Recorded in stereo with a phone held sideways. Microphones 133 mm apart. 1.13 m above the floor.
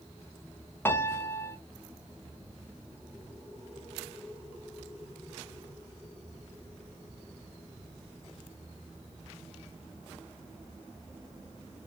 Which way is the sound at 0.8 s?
15° left (ahead or behind).